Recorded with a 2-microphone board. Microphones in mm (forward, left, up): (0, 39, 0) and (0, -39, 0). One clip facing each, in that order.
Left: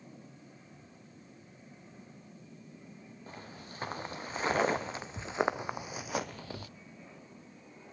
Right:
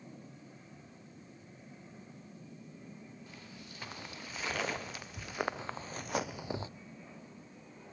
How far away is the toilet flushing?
I don't hear a toilet flushing.